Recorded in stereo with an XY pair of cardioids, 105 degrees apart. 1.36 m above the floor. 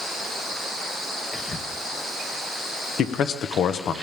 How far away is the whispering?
About 1.0 m.